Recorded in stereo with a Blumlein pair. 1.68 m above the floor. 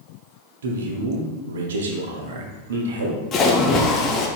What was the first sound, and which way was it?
A man speaking, 60° right.